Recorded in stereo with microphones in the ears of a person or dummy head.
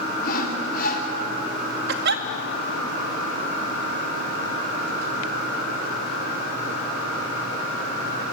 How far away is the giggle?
About 1.0 m.